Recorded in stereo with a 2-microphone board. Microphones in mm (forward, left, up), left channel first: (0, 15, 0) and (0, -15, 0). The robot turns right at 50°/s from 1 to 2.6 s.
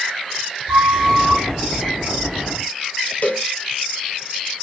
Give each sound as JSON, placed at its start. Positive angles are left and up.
{"t": 0.7, "sound": "a flute", "side_deg": -5, "distance_m": 2.5}
{"t": 3.2, "sound": "a cowbell", "side_deg": 55, "distance_m": 0.7}